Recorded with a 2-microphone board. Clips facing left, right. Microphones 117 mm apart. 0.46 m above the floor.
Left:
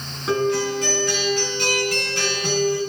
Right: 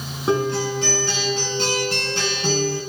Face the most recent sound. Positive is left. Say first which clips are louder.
# even
turn(degrees=-30)  # may be behind; listen again after turning